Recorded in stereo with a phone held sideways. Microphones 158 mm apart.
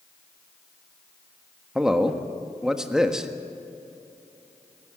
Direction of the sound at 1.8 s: 5° right (ahead or behind).